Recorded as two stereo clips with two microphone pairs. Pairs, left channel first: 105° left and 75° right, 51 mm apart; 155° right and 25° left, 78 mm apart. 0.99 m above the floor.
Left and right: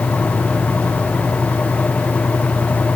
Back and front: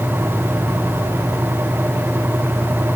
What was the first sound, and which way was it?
Only background noise.